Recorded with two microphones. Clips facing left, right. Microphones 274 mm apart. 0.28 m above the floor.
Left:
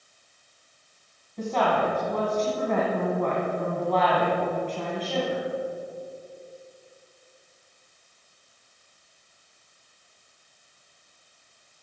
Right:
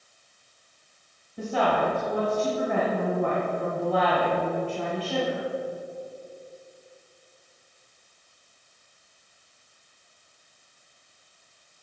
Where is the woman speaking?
10° right (ahead or behind), 2 m.